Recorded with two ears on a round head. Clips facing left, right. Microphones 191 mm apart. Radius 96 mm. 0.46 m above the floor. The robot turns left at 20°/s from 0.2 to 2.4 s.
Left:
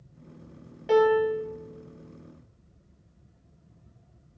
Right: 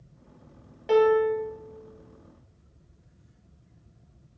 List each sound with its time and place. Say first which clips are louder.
0.9 s a piano: right 1 dB; centre (ahead or behind), 2.5 m; by 1.5 s 10° left (ahead or behind), 2.5 m